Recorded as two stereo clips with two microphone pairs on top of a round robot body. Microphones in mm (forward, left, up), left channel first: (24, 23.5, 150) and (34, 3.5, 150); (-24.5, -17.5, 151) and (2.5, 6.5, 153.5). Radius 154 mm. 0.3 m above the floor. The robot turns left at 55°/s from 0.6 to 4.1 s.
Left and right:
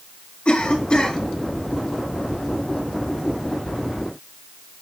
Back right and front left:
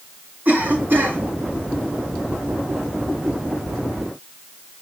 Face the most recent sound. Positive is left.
turn(degrees=-105)